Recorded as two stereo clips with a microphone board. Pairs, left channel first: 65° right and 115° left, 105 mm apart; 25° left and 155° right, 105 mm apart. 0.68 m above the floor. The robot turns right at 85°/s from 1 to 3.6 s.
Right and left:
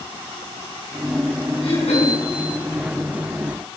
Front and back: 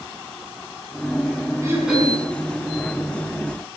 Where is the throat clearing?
95° right, 4.5 m; by 2.2 s 50° right, 4.5 m.